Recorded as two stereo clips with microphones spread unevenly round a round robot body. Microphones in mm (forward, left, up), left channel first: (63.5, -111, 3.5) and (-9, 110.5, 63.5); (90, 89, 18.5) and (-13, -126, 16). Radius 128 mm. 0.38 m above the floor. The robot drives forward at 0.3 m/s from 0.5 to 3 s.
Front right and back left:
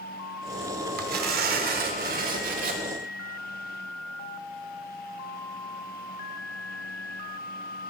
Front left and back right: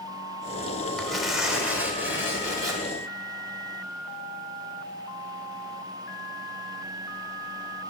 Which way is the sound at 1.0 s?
150° left.